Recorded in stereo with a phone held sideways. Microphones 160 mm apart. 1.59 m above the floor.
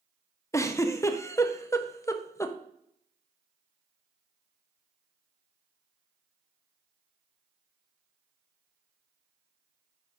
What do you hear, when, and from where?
0.5 s a giggle: 20° left (ahead or behind), 0.5 m